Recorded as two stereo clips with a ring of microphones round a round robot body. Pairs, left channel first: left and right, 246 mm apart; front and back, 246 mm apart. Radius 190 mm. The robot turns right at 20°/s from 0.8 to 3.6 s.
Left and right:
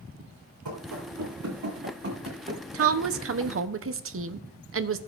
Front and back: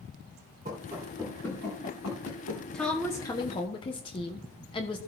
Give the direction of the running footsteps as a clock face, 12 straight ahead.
4 o'clock.